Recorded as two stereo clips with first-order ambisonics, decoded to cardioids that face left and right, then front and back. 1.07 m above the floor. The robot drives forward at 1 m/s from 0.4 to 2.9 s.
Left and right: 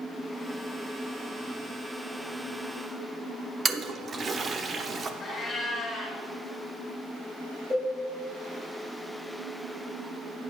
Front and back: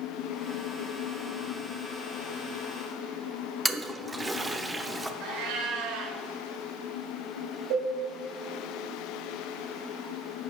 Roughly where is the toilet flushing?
Behind right.